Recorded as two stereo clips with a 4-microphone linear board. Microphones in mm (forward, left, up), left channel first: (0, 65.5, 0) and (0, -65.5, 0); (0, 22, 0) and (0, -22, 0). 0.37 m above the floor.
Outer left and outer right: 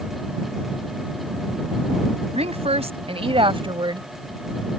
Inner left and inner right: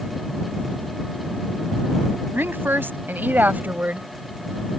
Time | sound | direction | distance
2.3 | a woman speaking | 55° right (ahead or behind) | ?